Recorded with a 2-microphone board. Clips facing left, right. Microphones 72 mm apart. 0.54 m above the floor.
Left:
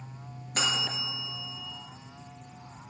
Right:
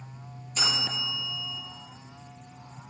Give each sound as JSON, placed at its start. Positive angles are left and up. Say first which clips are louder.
{"t": 0.6, "sound": "a bell", "louder": "even", "side_deg": 60, "distance_m": 4.5}